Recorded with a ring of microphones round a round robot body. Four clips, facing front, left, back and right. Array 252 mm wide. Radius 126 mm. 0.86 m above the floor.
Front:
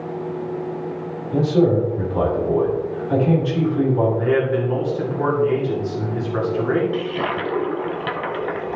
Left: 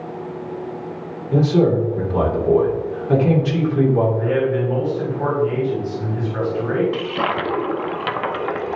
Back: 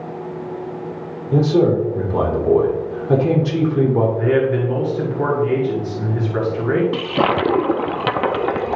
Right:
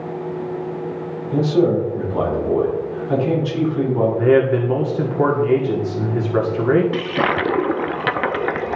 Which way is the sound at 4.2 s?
100° right.